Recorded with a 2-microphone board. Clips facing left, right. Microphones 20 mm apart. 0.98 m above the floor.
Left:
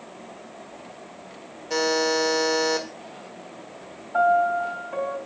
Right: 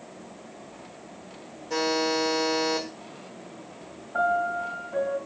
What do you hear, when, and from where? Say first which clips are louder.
1.7 s a buzzer: left 3 dB; 40° left (ahead or behind), 1.5 m
4.1 s a piano: left 5 dB; 50° left (ahead or behind), 2.5 m